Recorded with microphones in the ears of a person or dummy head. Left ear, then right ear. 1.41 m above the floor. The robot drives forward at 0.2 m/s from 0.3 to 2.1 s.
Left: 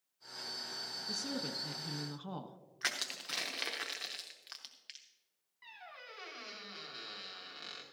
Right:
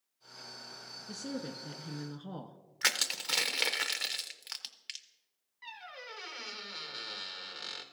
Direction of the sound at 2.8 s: 15° right (ahead or behind).